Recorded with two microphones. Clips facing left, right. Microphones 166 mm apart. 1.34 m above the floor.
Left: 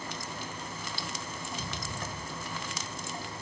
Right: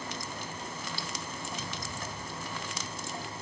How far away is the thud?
About 1.6 m.